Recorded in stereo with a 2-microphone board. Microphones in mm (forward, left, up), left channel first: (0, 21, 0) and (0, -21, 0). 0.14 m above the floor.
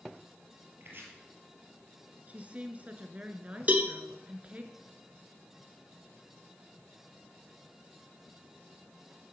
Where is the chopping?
55° right (ahead or behind), 3.5 m.